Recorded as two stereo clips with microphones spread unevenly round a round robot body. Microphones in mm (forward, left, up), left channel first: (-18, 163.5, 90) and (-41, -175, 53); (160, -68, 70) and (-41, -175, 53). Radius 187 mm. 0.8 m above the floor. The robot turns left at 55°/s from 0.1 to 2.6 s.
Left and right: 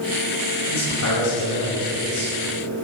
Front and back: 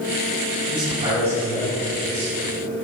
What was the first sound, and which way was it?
A man speaking, 155° left.